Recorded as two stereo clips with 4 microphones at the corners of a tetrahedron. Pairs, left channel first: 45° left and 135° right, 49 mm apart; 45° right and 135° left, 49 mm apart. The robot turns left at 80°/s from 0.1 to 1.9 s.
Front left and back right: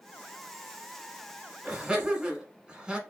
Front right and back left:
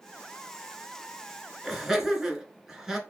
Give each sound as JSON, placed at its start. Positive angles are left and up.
{"t": 1.6, "sound": "laughter", "azimuth_deg": -140, "distance_m": 1.3}